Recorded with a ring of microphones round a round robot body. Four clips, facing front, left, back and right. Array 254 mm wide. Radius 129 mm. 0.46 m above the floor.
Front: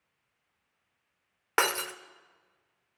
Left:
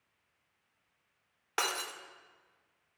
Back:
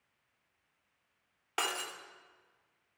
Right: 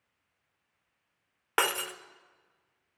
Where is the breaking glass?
30° right, 0.5 m.